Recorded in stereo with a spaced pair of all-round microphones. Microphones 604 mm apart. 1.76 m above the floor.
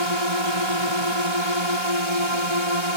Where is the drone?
45° right (ahead or behind).